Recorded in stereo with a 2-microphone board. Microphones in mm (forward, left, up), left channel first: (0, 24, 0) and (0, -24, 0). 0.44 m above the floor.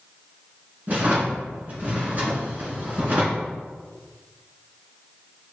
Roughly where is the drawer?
Right.